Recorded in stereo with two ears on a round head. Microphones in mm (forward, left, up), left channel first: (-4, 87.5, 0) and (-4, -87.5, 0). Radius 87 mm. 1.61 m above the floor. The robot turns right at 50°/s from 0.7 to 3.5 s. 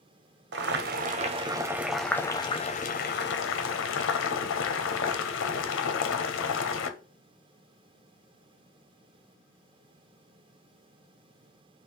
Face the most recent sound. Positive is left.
turn(degrees=75)